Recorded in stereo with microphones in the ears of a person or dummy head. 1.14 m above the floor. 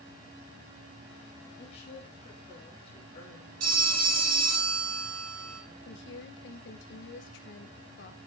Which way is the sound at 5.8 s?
60° left (ahead or behind).